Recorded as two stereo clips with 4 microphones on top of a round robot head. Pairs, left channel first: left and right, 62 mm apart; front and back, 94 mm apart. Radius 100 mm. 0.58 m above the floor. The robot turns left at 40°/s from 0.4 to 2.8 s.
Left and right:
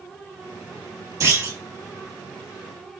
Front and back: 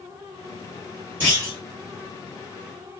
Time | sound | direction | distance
1.2 | a clunk | 110° right | 2.5 m